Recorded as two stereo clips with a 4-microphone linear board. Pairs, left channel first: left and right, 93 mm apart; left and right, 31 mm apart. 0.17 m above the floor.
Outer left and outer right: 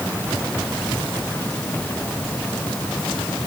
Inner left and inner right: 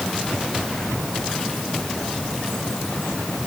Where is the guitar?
I don't hear a guitar.